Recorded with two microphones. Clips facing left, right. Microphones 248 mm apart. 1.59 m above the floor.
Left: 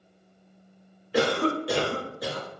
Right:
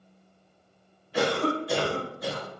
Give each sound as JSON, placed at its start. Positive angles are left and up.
{"t": 1.1, "sound": "a cough", "side_deg": 90, "distance_m": 0.8}